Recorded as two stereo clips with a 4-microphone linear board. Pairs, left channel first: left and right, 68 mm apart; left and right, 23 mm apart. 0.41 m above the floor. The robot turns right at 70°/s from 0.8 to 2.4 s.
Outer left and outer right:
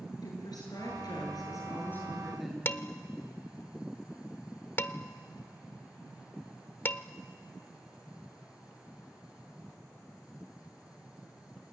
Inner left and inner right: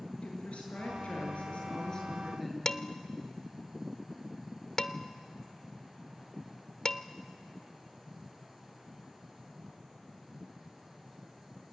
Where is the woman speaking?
70° left, 7.5 m; by 2.5 s straight behind, 7.5 m.